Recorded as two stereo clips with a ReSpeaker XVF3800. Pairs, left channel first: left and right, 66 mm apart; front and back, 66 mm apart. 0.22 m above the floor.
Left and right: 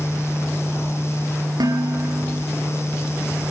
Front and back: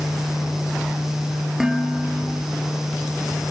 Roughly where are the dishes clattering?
Right.